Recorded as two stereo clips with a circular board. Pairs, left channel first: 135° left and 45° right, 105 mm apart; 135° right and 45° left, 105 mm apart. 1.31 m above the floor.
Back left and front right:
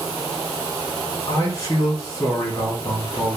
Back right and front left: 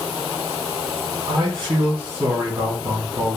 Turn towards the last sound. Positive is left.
turn(degrees=85)